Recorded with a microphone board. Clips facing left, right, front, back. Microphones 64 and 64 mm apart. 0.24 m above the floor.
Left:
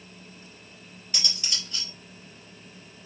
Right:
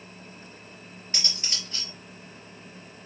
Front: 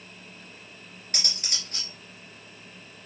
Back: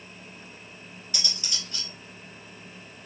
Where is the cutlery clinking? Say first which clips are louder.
Left 1 dB, even; 35° right, 3 m.